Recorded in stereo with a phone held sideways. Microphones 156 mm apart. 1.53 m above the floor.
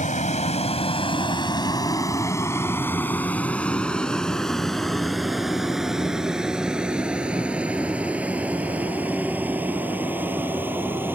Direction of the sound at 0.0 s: 55° left (ahead or behind).